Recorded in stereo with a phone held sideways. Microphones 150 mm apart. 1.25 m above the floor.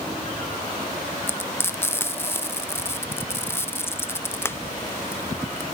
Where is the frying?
15° left (ahead or behind), 0.6 m.